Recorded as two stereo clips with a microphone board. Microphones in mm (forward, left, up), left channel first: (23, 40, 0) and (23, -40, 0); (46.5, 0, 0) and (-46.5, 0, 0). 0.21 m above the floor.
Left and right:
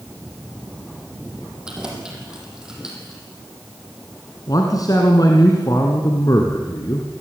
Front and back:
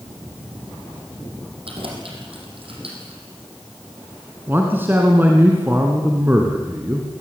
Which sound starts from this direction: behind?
Keys jangling, at 1.6 s.